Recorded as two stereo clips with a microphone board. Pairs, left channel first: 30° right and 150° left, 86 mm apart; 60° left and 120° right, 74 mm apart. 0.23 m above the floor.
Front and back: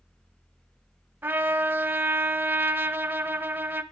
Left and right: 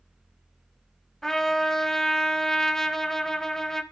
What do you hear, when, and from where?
1.2 s a trumpet: 135° left, 0.7 m